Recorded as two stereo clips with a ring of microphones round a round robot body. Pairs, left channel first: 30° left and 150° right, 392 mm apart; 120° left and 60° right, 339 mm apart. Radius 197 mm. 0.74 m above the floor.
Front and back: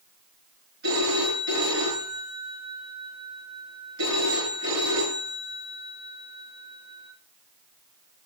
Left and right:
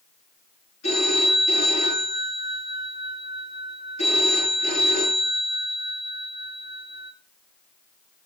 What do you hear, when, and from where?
0.8 s a phone ringing: 175° left, 7.5 m